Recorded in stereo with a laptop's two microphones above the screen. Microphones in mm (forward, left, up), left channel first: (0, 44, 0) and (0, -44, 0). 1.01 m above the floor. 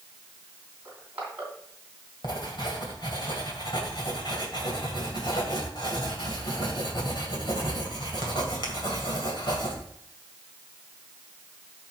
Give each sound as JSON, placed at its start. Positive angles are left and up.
{"t": 0.8, "sound": "crushing", "side_deg": -20, "distance_m": 3.0}
{"t": 2.2, "sound": "writing", "side_deg": 60, "distance_m": 2.0}